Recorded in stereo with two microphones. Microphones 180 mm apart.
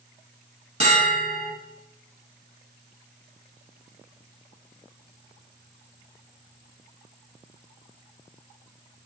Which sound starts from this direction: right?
A bell, at 0.8 s.